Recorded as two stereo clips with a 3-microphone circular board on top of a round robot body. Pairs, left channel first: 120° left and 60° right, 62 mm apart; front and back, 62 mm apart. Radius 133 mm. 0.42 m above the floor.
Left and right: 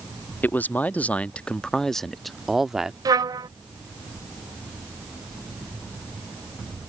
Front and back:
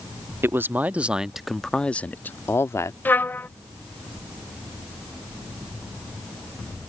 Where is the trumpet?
60° right.